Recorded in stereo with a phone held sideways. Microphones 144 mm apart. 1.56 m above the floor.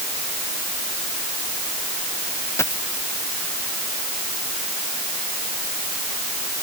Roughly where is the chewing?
I don't hear chewing.